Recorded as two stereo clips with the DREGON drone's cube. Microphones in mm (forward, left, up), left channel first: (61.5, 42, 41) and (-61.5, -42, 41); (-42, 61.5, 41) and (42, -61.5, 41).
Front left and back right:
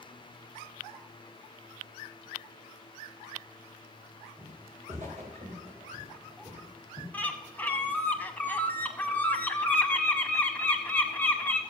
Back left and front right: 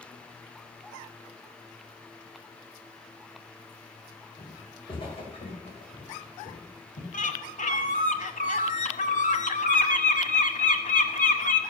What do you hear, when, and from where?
4.4 s footsteps: 170° right, 4.5 m; by 7.0 s 150° left, 4.5 m
7.1 s a bird: 110° left, 1.0 m